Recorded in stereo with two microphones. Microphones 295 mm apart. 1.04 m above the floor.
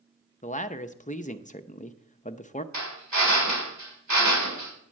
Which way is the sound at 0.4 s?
25° left (ahead or behind).